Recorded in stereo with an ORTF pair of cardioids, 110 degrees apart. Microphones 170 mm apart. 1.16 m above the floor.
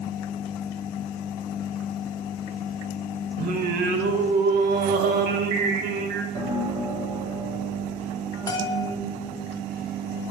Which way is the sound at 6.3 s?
25° right.